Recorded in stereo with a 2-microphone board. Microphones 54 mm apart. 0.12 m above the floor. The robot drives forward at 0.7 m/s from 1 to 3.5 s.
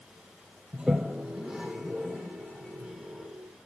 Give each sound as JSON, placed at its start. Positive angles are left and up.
{"t": 0.7, "sound": "a toilet flushing", "side_deg": -15, "distance_m": 0.5}